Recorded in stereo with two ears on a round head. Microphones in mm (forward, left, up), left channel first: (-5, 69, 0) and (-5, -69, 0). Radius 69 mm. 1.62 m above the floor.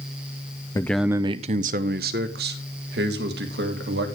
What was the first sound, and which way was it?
A man speaking, 20° left (ahead or behind).